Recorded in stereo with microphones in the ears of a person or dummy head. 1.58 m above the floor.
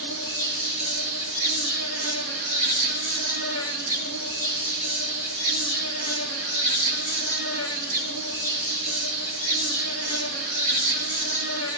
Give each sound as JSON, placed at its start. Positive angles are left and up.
{"t": 0.0, "sound": "an insect", "side_deg": 80, "distance_m": 5.0}